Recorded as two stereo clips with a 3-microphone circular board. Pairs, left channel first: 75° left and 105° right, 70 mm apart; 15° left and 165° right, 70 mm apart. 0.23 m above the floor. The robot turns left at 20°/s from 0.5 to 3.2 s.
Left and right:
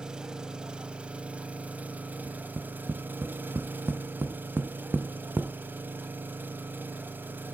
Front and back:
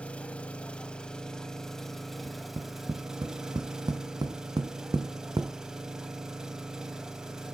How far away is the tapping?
About 0.7 m.